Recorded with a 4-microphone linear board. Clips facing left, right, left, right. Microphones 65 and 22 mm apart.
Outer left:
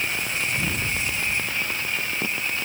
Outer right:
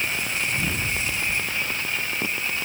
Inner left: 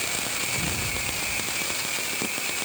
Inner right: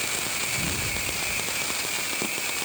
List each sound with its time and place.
Only background noise.